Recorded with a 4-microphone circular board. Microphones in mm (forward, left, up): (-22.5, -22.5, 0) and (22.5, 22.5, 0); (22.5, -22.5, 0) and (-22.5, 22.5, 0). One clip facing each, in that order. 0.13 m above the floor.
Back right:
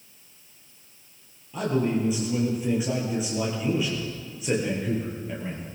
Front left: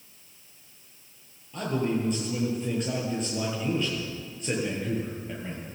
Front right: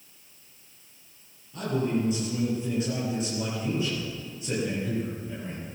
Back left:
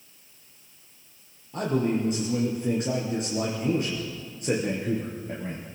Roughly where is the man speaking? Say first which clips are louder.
Back right 3 dB, back left 2 dB; behind left.